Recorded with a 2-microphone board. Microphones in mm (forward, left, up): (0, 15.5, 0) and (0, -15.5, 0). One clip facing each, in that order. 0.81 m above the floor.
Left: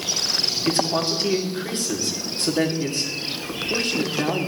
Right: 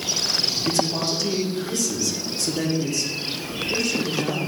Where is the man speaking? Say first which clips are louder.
Left 3 dB; 45° left (ahead or behind), 1.7 m.